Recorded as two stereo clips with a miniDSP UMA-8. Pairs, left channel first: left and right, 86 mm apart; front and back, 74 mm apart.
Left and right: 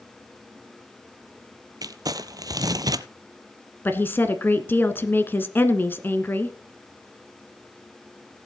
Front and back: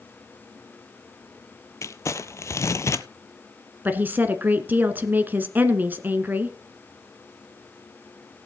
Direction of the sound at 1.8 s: 50° right.